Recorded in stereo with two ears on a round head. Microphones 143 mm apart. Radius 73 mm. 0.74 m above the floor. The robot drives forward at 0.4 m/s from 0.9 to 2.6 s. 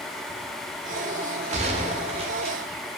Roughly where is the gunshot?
Right.